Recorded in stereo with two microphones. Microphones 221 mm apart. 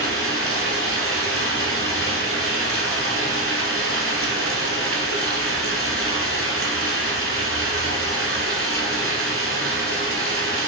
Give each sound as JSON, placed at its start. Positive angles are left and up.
{"t": 0.0, "sound": "running water", "side_deg": -75, "distance_m": 1.0}